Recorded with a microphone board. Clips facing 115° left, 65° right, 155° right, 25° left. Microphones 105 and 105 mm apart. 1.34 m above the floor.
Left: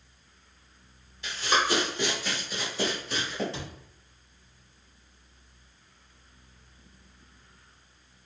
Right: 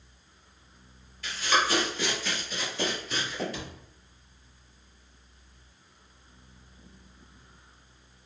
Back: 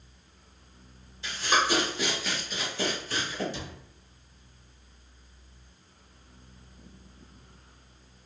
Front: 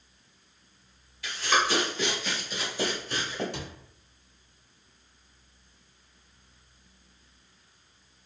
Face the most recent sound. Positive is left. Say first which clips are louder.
# even, front 1 dB
turn(degrees=50)